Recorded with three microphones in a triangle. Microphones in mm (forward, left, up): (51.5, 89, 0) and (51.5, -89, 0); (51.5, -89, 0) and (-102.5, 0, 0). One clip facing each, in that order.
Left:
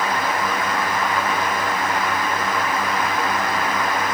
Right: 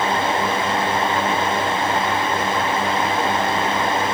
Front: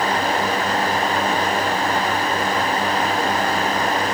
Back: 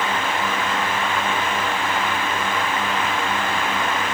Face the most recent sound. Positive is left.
No sound to turn to.